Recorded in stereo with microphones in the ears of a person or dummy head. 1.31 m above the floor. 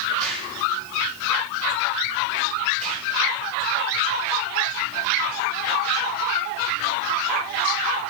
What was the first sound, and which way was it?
An explosion, 45° right (ahead or behind).